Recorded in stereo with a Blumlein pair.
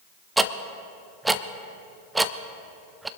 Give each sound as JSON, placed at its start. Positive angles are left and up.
{"t": 0.4, "sound": "ticking", "azimuth_deg": -10, "distance_m": 0.6}